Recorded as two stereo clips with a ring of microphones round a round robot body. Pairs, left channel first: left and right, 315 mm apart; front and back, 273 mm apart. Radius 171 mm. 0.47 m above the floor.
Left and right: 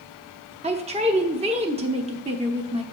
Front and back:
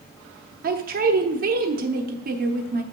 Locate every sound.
0.6 s a man speaking: 150° right, 0.8 m